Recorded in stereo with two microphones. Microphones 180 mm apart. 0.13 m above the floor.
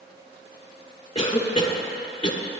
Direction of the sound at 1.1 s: 30° left (ahead or behind).